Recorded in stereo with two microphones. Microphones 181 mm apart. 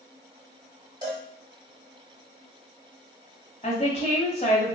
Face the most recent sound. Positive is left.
turn(degrees=35)  # may be behind; listen again after turning